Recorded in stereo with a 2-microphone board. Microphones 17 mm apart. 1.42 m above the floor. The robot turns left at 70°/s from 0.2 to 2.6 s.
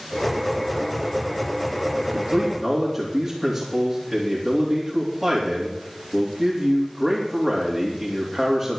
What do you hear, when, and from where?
2.0 s a man speaking: 145° right, 3.5 m; by 8.8 s 175° left, 3.5 m